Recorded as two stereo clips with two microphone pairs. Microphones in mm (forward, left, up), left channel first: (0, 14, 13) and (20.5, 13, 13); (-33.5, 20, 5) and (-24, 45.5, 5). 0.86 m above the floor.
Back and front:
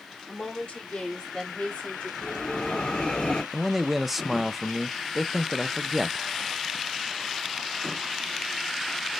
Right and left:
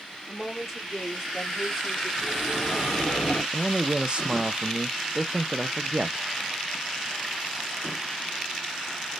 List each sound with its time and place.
0.3 s a woman speaking: 170° left, 2.5 m; by 2.1 s 175° left, 1.8 m
2.2 s a bell: 170° right, 1.8 m
3.5 s a man speaking: 75° left, 0.5 m